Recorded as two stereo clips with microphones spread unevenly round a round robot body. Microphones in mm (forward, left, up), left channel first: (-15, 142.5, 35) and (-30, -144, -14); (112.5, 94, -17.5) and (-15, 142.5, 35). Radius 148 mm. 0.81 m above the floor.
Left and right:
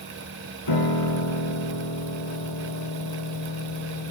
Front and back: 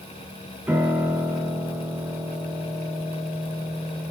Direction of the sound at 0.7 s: 80° left.